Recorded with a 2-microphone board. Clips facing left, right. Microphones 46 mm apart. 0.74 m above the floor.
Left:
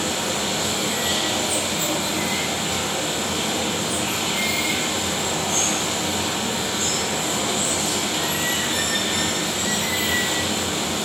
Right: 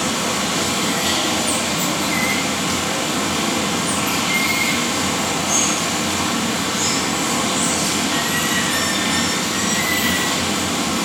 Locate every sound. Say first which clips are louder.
0.0 s running water: right 4 dB; 80° right, 3.5 m